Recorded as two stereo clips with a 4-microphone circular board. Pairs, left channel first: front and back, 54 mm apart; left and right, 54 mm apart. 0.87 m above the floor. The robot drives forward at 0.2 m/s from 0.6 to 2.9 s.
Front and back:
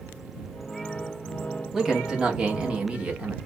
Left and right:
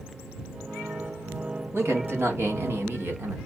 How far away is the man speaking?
About 1.1 m.